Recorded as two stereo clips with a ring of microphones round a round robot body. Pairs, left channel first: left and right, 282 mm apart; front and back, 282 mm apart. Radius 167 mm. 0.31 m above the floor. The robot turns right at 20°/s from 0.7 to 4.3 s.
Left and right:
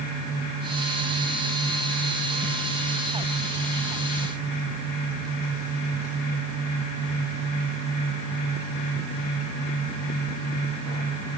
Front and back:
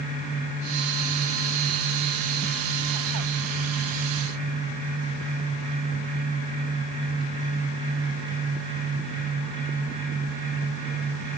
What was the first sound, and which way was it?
Only background noise.